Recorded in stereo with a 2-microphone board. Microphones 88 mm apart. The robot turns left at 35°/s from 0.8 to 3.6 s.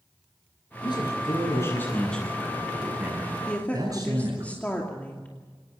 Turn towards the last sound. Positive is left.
turn(degrees=15)  # may be behind; listen again after turning